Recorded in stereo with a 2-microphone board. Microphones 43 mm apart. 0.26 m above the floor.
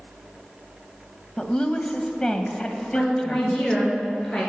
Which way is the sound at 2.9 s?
5° left (ahead or behind).